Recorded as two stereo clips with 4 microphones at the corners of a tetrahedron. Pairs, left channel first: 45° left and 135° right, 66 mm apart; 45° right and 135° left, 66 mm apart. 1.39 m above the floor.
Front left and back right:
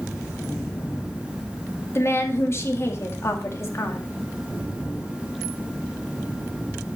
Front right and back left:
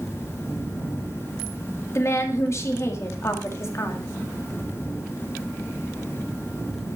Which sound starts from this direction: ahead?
A woman speaking, at 1.9 s.